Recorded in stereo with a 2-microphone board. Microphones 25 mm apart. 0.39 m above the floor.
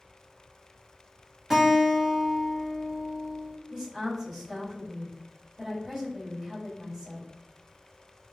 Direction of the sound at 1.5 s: 20° right (ahead or behind).